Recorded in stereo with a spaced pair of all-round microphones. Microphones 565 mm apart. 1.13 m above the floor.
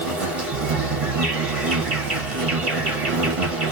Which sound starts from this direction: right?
An insect, at 0.0 s.